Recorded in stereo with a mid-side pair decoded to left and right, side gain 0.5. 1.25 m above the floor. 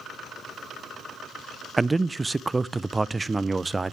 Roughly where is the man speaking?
Ahead.